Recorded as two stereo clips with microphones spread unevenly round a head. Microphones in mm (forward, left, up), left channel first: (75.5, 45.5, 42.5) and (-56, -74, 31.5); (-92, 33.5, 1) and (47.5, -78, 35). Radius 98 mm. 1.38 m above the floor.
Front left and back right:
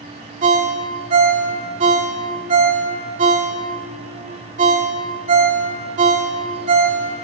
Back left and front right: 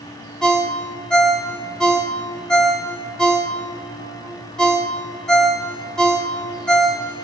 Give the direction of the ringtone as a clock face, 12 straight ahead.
4 o'clock.